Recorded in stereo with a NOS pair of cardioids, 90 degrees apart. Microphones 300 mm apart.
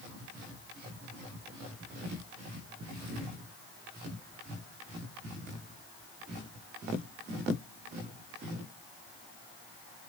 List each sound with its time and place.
Only background noise.